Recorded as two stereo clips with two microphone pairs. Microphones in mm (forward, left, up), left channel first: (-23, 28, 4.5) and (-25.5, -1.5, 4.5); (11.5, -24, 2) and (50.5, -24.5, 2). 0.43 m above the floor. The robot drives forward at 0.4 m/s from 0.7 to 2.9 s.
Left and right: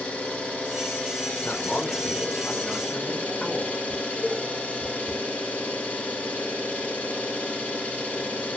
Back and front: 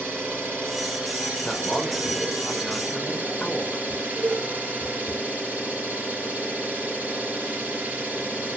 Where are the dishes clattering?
35° left, 5 m.